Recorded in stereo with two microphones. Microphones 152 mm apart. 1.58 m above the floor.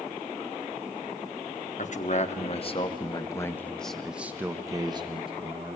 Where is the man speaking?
55° left (ahead or behind), 1.4 m; by 5.8 s 45° right (ahead or behind), 1.4 m.